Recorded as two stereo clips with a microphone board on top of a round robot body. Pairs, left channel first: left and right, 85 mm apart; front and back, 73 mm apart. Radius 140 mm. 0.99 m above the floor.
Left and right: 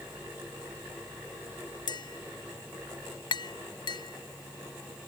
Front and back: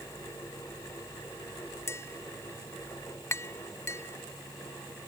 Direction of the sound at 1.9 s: 55° left.